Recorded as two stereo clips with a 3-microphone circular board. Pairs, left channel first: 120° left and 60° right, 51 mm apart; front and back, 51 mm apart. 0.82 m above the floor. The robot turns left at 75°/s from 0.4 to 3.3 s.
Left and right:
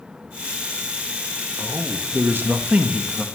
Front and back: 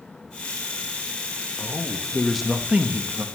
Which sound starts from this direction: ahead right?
A man speaking, at 1.6 s.